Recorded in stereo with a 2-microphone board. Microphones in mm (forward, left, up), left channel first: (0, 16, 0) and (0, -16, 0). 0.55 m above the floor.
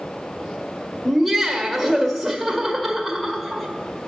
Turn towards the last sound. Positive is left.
turn(degrees=0)  # may be behind; listen again after turning